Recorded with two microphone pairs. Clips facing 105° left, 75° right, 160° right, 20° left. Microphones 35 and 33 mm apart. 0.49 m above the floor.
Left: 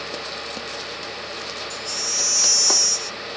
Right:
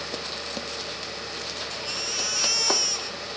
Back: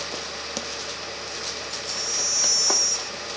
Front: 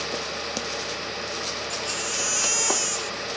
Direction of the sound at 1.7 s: 15° right.